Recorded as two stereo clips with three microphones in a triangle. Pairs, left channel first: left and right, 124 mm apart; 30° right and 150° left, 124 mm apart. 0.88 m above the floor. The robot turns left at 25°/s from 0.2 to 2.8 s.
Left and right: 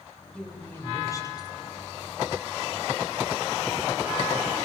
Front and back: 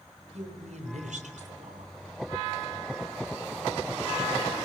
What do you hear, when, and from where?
0.3 s a woman speaking: 175° left, 4 m; by 1.9 s 135° left, 4 m